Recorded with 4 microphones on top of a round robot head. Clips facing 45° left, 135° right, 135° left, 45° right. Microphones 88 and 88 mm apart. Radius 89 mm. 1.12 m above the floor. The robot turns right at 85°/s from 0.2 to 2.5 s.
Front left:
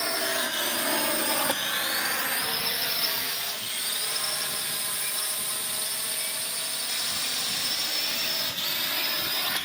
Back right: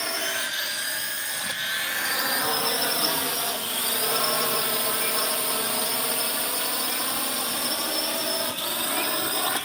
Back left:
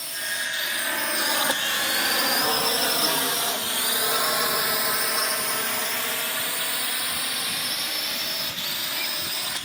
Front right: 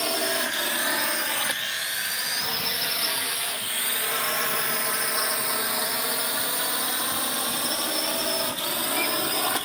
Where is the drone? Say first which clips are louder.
Front left 1 dB, front right 6 dB; 40° right; by 9.7 s 85° right.